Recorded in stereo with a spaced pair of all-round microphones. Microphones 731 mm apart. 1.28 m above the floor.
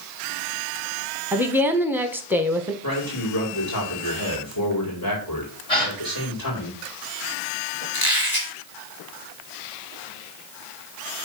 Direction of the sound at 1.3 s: 5° right (ahead or behind).